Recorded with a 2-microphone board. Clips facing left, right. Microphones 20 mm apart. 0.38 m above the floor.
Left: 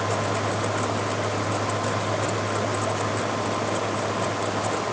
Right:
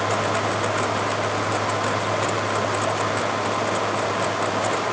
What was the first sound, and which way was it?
Only background noise.